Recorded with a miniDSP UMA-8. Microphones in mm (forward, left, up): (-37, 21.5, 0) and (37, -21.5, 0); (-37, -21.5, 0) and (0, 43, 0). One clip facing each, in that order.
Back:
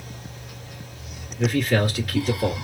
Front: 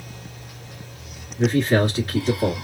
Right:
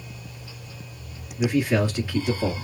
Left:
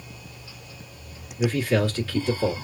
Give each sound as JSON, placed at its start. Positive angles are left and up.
{"t": 1.4, "sound": "a man speaking", "azimuth_deg": -60, "distance_m": 1.6}